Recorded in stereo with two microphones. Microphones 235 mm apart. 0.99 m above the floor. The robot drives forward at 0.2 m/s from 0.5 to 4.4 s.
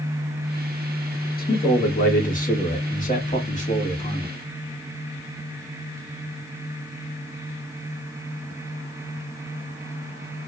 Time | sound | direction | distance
1.4 | a man speaking | 40° left (ahead or behind) | 1.5 m